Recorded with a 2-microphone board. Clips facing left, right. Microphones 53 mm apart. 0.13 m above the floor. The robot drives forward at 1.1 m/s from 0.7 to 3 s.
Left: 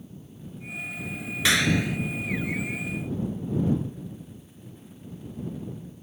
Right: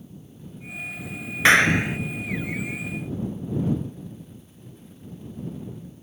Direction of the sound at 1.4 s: 40° right (ahead or behind).